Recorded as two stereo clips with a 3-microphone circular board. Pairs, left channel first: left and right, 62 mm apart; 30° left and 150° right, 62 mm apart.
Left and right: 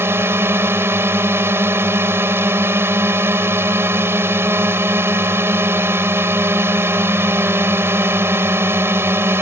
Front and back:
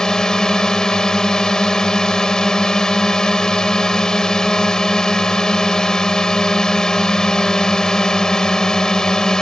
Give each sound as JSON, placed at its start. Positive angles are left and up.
{"t": 0.0, "sound": "a drone", "azimuth_deg": -50}